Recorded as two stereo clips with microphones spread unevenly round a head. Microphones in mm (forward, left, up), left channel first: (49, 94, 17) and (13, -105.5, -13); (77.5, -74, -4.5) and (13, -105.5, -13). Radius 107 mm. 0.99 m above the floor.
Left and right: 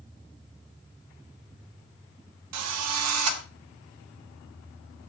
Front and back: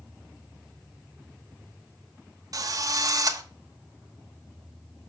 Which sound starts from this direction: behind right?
A drill, at 2.5 s.